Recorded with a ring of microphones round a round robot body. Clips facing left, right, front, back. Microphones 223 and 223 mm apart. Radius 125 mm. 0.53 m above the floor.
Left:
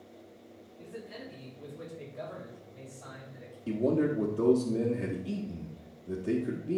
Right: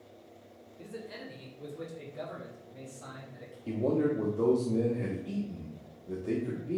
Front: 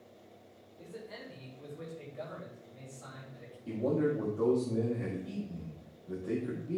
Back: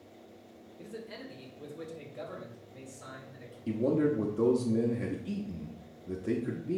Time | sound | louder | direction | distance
0.8 | a man speaking | right 1 dB, back 3 dB | 125° right | 2 m
3.7 | a man speaking | left 1 dB, back 3 dB | 160° left | 1.0 m